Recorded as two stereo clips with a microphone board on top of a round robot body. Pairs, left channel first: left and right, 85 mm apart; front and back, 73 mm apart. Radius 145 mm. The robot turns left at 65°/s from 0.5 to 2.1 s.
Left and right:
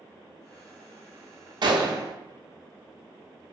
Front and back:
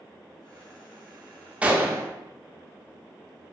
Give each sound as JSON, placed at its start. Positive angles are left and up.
{"t": 1.6, "sound": "a gunshot", "azimuth_deg": -105, "distance_m": 0.6}